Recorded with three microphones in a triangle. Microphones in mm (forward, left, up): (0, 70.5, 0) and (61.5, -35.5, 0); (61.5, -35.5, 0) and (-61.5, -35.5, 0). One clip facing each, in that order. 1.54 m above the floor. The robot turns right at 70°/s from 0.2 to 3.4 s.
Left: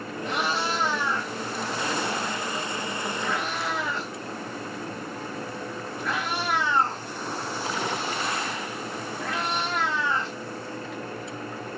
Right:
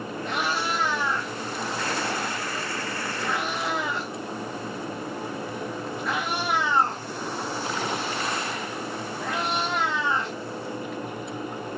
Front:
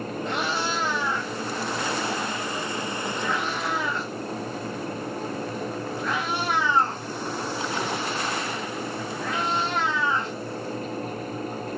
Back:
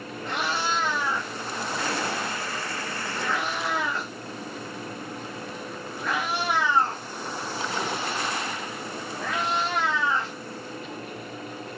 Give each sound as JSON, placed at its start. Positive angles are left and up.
{"t": 0.2, "sound": "a cat meowing", "azimuth_deg": 40, "distance_m": 1.3}